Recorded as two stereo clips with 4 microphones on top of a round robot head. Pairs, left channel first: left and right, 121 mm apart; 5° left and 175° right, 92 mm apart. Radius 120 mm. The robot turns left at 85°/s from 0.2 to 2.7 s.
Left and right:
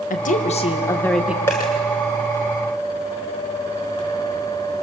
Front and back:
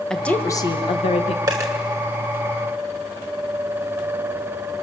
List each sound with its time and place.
0.1 s a woman speaking: 85° left, 2 m; by 1.4 s 15° right, 2 m
1.5 s a dropped coin: 160° left, 1.3 m; by 1.7 s 140° left, 1.3 m